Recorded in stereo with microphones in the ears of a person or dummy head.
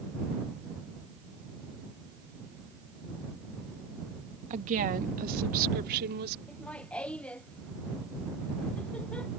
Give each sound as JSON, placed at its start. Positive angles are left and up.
{"t": 4.5, "sound": "a woman speaking", "side_deg": -35}
{"t": 6.5, "sound": "laughter", "side_deg": 10}